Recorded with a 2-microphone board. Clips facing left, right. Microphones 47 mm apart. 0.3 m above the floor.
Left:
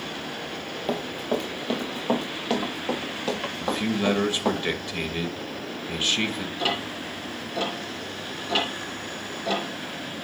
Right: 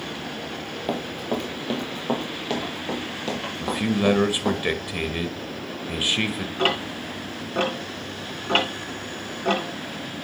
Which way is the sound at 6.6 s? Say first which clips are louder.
Right 5 dB; 45° right (ahead or behind).